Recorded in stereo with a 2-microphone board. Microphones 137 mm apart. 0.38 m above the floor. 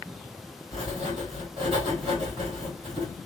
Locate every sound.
0.7 s writing: 40° right (ahead or behind), 2.0 m